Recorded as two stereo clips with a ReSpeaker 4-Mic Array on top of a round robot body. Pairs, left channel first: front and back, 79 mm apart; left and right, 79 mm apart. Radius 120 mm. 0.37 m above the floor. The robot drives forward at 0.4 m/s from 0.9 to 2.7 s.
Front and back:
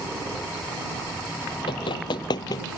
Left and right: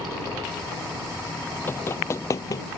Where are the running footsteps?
25° left; by 2.6 s 45° left.